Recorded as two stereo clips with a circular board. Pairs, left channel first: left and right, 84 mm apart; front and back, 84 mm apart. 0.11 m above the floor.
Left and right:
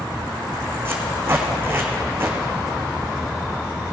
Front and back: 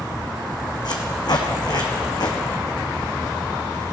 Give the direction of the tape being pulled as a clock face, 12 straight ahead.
1 o'clock.